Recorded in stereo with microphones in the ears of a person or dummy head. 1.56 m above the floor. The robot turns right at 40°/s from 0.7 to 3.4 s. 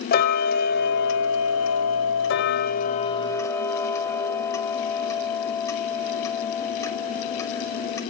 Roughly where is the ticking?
Ahead left.